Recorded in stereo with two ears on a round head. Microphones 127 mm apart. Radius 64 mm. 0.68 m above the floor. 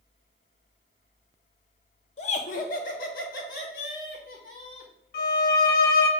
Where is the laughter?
45° left (ahead or behind), 0.7 m; by 4.9 s 65° left (ahead or behind), 2.5 m.